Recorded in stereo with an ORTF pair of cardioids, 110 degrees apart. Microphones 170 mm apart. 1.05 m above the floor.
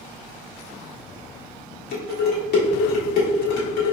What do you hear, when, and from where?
1.9 s dishes clattering: 65° left, 1.5 m